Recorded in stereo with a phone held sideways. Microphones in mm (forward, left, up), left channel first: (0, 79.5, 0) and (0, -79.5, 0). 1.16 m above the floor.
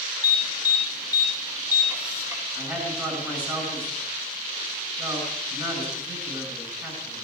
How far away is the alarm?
About 2.5 m.